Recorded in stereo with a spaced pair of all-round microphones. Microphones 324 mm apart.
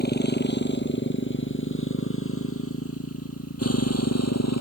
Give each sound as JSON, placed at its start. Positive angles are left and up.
{"t": 0.0, "sound": "a motorcycle", "side_deg": 30}